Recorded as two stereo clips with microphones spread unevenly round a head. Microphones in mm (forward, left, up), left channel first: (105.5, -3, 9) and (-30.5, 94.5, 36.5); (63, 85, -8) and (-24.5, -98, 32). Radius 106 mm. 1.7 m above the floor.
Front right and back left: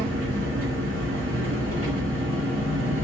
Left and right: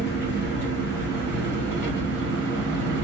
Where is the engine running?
175° left, 1.8 m.